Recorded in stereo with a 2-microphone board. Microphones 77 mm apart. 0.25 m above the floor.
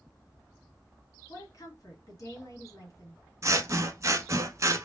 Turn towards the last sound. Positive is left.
turn(degrees=-40)  # may be behind; listen again after turning